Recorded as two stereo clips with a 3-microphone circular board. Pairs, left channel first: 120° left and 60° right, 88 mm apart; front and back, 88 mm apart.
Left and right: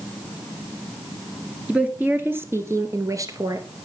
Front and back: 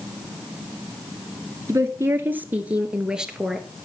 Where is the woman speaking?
130° right, 1.6 m; by 3.7 s 95° right, 2 m.